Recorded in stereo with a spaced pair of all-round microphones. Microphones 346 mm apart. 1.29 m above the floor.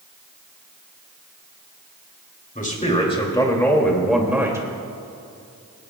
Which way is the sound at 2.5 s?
25° left (ahead or behind).